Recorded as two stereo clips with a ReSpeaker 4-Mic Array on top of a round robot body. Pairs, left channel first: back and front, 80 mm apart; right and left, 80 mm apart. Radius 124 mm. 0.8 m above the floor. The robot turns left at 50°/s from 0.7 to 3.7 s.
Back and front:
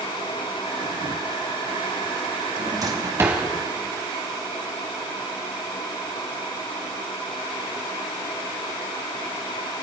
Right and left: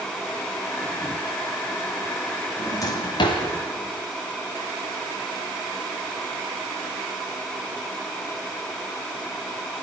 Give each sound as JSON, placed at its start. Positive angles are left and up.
{"t": 2.6, "sound": "a drawer", "azimuth_deg": -30, "distance_m": 2.5}